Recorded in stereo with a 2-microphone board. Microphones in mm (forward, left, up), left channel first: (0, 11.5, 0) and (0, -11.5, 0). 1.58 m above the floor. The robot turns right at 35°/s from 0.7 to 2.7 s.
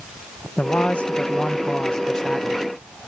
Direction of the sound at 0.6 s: 90° left.